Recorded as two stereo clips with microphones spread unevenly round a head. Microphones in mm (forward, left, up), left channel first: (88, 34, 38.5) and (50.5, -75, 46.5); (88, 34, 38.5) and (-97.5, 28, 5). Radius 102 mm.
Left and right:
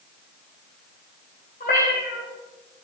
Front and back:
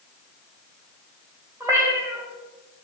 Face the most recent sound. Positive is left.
turn(degrees=105)